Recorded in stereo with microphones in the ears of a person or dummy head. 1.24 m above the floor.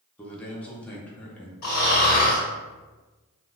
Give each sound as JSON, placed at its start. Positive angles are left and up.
{"t": 0.2, "sound": "a man speaking", "side_deg": 5, "distance_m": 0.6}
{"t": 1.6, "sound": "snoring", "side_deg": 40, "distance_m": 1.1}